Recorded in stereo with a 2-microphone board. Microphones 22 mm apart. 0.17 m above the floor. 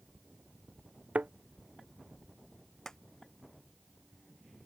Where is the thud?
75° right (ahead or behind).